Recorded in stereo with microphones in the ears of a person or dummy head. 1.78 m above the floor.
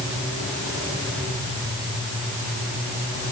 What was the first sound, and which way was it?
Only background noise.